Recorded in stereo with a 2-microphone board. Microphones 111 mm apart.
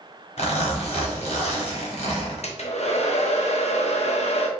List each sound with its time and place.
0.4 s a zipper: 70° left (ahead or behind), 1.2 m
2.4 s a hair dryer: 75° left (ahead or behind), 0.6 m